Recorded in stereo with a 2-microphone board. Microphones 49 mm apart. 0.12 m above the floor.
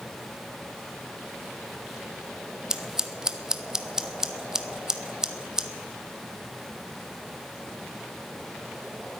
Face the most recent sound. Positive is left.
turn(degrees=-15)  # may be behind; listen again after turning